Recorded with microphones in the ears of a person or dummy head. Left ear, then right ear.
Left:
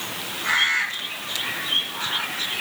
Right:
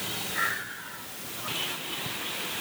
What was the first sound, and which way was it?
Only background noise.